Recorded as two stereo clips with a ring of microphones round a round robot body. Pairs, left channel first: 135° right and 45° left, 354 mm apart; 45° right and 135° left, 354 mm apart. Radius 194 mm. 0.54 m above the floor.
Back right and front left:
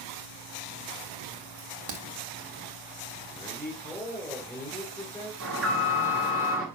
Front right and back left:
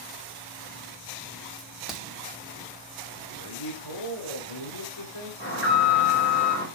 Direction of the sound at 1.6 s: 45° left.